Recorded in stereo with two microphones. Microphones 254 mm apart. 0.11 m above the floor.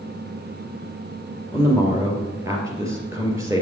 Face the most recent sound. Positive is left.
turn(degrees=-10)  # may be behind; listen again after turning